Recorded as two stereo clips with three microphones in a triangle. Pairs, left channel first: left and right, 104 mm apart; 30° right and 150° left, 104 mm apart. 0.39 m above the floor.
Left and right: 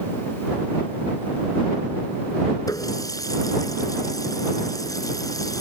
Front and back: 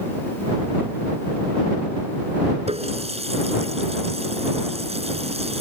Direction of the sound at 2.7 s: 145° left.